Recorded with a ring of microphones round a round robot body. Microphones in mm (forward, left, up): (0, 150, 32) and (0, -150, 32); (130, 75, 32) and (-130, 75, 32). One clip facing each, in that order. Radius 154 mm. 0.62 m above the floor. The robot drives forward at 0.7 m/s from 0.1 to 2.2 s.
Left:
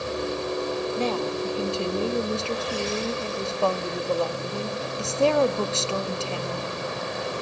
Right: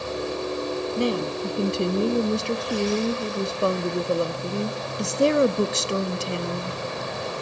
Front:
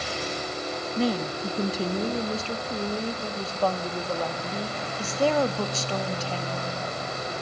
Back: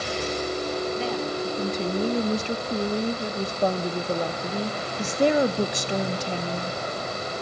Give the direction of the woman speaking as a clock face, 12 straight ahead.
1 o'clock.